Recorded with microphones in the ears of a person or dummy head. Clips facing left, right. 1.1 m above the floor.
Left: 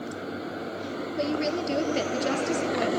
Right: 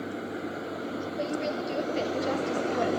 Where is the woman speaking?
65° left (ahead or behind), 3 m.